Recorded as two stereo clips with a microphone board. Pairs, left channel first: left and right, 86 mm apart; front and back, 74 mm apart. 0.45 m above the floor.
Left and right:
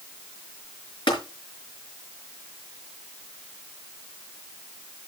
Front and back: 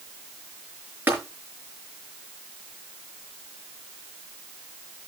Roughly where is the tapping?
Behind left.